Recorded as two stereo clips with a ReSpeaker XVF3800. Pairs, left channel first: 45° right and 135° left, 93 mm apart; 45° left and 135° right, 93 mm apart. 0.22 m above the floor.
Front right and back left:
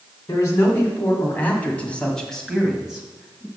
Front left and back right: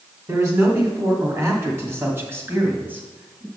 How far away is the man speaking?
About 2 m.